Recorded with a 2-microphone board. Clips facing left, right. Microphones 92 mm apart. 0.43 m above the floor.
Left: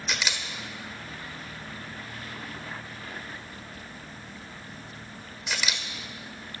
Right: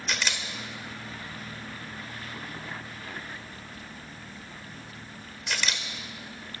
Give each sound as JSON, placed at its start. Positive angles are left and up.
{"t": 0.1, "sound": "a camera shutter", "side_deg": 5, "distance_m": 1.4}